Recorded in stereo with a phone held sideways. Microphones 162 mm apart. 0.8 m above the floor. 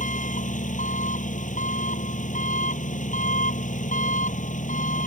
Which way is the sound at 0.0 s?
50° left (ahead or behind).